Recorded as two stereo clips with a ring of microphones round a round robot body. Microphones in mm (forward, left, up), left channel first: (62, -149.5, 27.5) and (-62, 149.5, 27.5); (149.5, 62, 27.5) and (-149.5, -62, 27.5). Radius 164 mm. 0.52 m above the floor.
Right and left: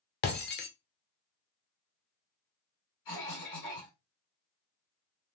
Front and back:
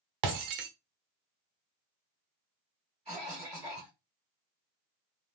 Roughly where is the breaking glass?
Behind right.